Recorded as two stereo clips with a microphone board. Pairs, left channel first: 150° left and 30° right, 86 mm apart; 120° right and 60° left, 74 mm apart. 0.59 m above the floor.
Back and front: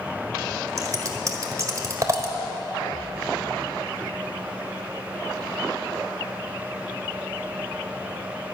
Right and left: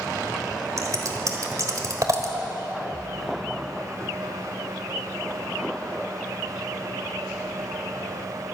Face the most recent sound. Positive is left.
turn(degrees=20)